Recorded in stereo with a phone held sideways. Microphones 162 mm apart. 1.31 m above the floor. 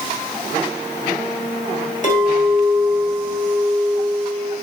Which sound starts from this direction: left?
A clink, at 2.0 s.